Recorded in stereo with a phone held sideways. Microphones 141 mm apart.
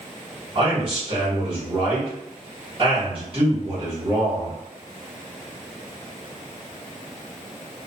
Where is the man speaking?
40° right (ahead or behind), 1.4 m.